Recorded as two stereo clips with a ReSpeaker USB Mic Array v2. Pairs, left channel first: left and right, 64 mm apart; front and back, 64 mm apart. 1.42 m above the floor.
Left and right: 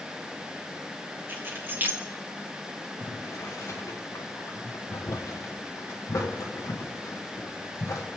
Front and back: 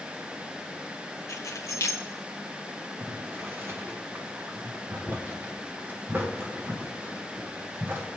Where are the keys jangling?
35° right, 1.5 m.